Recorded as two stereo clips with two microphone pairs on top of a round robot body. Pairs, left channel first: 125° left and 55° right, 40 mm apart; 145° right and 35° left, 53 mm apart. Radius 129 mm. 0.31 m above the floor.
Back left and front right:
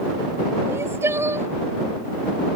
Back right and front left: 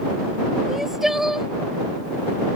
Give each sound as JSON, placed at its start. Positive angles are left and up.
{"t": 0.7, "sound": "crying", "azimuth_deg": -50}